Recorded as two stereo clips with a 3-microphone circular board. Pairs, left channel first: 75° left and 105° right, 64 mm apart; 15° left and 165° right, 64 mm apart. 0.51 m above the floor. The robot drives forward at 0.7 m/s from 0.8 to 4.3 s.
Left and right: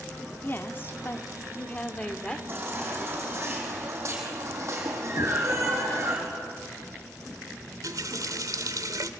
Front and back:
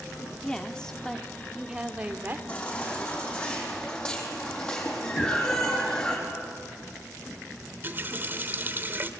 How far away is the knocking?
About 3 m.